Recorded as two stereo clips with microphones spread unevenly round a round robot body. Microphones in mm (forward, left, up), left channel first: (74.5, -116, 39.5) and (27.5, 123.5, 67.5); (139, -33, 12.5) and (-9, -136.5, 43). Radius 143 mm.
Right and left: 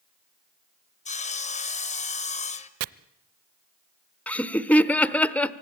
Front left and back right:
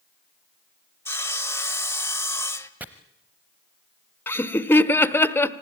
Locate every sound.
1.1 s sawing: 30° right, 1.8 m
2.8 s chopping: 125° left, 0.5 m
4.3 s laughter: 10° right, 1.0 m